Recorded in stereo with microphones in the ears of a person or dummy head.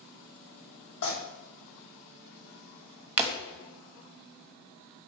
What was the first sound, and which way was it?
Tearing paper, 80° left.